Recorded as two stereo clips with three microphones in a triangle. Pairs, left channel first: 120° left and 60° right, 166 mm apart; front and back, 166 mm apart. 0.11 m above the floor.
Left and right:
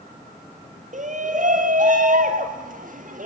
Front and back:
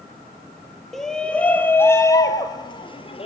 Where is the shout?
90° right, 2.5 m; by 3.3 s 45° right, 2.5 m.